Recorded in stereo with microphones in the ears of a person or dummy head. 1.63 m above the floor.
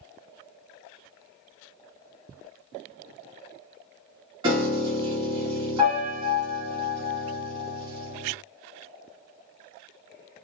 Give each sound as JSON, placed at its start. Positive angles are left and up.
{"t": 4.4, "sound": "a piano", "side_deg": -25, "distance_m": 1.2}